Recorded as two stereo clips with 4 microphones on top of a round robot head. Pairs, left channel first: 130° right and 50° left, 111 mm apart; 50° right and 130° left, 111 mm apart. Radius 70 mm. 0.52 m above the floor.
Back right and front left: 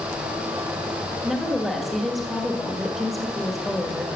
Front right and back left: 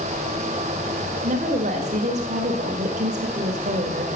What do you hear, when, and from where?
1.2 s a woman speaking: 140° left, 1.9 m